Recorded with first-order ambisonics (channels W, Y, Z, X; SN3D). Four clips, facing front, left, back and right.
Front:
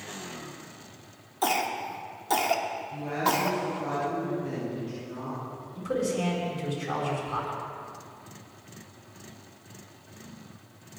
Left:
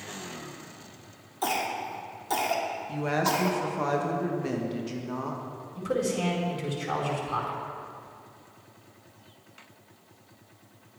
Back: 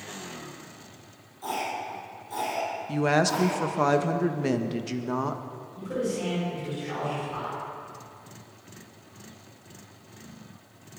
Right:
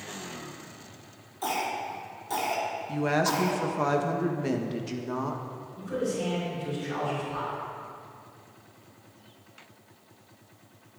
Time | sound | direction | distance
1.4 | a cough | 20° left | 2.5 m
2.9 | a woman speaking | 170° right | 1.5 m
5.8 | a man speaking | 60° left | 5 m